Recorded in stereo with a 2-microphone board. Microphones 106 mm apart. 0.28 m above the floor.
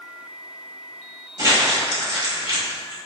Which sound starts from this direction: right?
Crumpling, at 1.4 s.